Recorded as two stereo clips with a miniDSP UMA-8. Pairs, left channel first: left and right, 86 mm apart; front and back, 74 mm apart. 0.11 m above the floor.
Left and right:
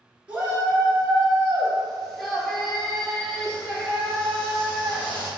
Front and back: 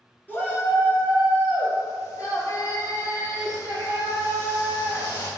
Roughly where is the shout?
Ahead right.